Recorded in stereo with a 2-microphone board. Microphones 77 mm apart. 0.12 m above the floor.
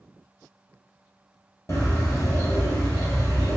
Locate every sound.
1.7 s a bird: 40° left (ahead or behind), 1.3 m